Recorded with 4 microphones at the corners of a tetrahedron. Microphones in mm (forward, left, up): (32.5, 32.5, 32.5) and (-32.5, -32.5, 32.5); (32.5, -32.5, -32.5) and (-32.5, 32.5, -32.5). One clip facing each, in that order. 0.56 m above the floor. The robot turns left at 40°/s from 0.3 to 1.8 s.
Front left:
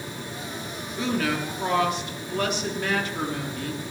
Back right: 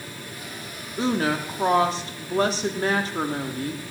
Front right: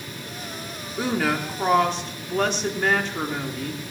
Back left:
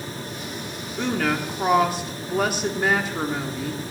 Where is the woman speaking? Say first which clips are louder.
Back right 3 dB, even; 115° right, 1.2 m; by 3.9 s 145° right, 1.2 m.